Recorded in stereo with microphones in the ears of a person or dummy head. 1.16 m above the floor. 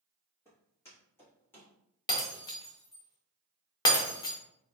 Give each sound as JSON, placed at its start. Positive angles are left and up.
{"t": 0.5, "sound": "footsteps", "side_deg": 10, "distance_m": 1.7}
{"t": 2.1, "sound": "breaking glass", "side_deg": 25, "distance_m": 0.6}